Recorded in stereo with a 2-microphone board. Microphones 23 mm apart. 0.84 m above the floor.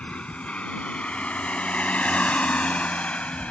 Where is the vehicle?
65° left (ahead or behind); by 3.5 s 75° left (ahead or behind).